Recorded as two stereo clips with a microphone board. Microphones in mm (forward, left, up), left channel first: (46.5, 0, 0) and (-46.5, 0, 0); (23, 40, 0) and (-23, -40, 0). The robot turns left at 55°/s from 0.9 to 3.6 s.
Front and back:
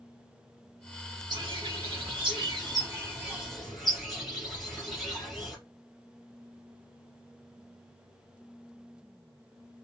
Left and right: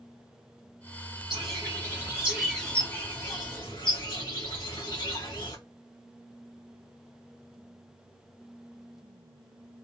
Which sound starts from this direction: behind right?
A bird, at 1.3 s.